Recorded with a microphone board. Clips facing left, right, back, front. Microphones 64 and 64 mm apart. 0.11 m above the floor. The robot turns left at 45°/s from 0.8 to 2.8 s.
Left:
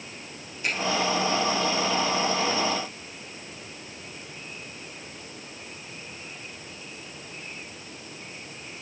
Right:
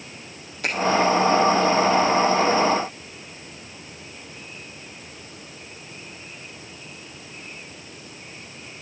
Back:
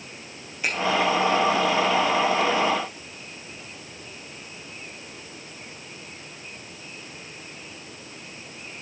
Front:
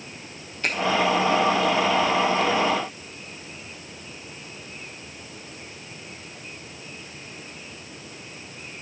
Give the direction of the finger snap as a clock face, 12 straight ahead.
3 o'clock.